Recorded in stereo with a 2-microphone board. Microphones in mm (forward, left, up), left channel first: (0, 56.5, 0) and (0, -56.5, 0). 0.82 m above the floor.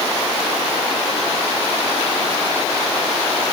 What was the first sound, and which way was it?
Only background noise.